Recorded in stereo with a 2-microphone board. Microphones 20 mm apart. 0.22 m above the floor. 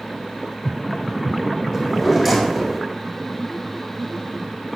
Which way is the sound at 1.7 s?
Centre (ahead or behind).